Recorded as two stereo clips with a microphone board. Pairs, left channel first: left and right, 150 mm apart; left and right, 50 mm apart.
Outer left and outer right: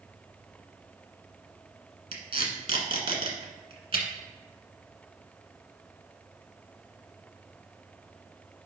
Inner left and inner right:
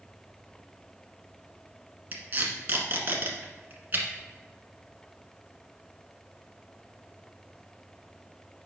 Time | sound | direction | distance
2.1 | tape being pulled | 40° right (ahead or behind) | 1.5 m